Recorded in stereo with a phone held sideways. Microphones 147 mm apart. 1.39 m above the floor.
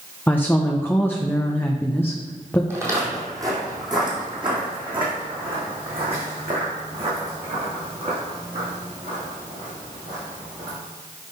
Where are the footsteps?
15° right (ahead or behind), 2.5 m; by 10.8 s 55° right (ahead or behind), 6.5 m.